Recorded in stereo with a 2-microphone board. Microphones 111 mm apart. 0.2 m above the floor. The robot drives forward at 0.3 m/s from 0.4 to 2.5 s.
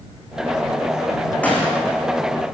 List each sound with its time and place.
1.4 s a gunshot: 10° left (ahead or behind), 7 m